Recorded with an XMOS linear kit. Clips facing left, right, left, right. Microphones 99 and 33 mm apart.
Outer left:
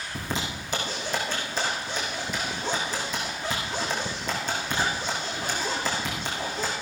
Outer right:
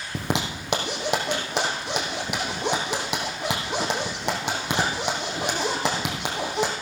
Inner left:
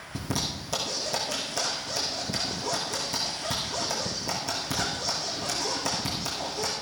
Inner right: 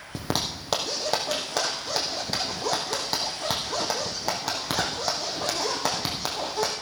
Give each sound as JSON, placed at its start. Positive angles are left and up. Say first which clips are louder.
{"t": 0.1, "sound": "a zipper", "louder": "outer right 5 dB, inner right 3 dB", "side_deg": -70, "distance_m": 4.0}